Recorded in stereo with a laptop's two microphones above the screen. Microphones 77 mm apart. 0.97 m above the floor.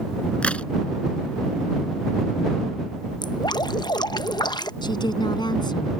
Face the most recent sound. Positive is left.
turn(degrees=70)  # may be behind; listen again after turning